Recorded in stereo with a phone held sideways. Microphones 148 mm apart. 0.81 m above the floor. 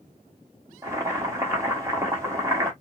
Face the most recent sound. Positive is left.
turn(degrees=-20)  # may be behind; listen again after turning